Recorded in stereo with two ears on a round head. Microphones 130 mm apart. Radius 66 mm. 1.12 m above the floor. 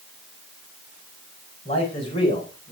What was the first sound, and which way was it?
A man speaking, 45° left (ahead or behind).